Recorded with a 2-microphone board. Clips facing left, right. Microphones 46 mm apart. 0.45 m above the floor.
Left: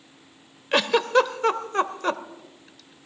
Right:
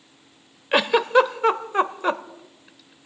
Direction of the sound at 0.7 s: 10° right (ahead or behind).